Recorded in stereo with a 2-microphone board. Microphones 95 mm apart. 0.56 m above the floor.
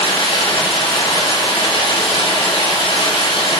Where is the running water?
70° left (ahead or behind), 5 m.